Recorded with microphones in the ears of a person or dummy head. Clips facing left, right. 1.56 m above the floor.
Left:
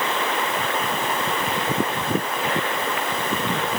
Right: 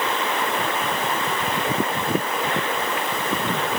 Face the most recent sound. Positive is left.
No sound to turn to.